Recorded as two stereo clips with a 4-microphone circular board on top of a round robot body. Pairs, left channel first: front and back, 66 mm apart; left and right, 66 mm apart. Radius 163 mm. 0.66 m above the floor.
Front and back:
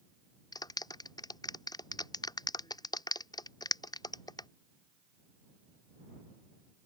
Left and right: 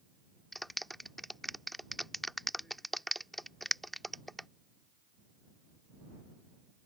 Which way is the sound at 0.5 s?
Straight ahead.